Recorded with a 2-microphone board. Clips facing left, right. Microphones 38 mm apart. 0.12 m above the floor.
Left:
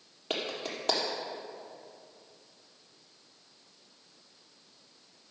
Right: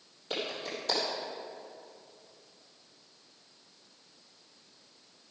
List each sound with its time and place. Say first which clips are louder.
0.3 s a clap: left 1 dB; 50° left (ahead or behind), 3.5 m